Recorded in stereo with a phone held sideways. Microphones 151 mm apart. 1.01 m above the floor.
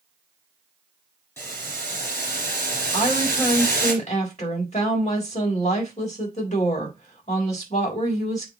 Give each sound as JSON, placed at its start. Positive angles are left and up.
{"t": 1.4, "sound": "boiling", "side_deg": 15, "distance_m": 3.0}
{"t": 2.9, "sound": "a woman speaking", "side_deg": 50, "distance_m": 3.5}